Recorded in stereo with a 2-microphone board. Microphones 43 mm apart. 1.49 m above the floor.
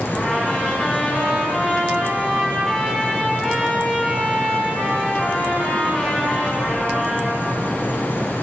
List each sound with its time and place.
0.1 s a trumpet: 15° left (ahead or behind), 1.8 m